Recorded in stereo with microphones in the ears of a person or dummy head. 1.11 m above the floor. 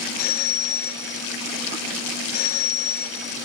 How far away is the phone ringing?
About 4 m.